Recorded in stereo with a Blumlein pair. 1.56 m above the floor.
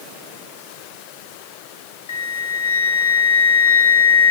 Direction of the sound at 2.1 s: 65° left.